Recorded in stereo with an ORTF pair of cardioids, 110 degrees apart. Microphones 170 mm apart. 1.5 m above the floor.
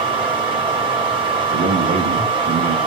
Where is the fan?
30° right, 6 m.